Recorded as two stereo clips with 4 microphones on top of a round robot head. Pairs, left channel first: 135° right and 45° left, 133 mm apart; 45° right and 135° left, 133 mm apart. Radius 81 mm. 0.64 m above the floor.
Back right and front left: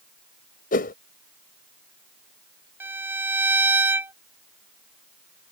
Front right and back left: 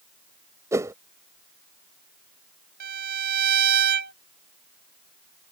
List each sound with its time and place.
0.7 s a whoosh: 155° right
2.8 s a violin: 120° left